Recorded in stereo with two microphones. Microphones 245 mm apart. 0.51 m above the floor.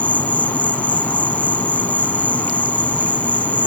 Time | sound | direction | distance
0.0 | an insect | 5° left (ahead or behind) | ?